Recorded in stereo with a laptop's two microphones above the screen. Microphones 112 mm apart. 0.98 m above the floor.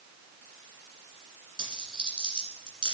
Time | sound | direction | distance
1.6 | a dropped coin | 50° right (ahead or behind) | 2 m